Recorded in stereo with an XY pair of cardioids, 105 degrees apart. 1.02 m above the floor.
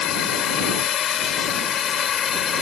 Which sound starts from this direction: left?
A drone, at 0.0 s.